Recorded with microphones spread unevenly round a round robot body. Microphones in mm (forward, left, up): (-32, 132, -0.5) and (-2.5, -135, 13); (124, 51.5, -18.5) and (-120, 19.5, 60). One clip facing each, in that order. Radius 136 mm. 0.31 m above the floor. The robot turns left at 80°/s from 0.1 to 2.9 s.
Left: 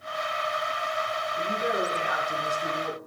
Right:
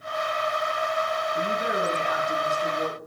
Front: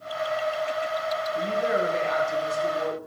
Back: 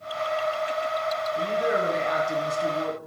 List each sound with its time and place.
1.4 s a woman speaking: 70° right, 3 m; by 3.0 s 165° left, 3 m